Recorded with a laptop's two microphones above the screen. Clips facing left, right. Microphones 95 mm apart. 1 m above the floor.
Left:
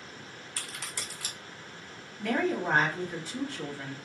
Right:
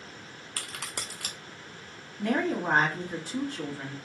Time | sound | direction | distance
0.6 | a crack | 65° right (ahead or behind) | 0.6 m
2.2 | a woman speaking | 35° right (ahead or behind) | 1.6 m